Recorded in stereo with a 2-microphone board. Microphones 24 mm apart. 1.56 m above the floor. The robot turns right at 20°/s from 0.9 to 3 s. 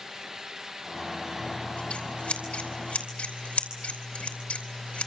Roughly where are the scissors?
Left.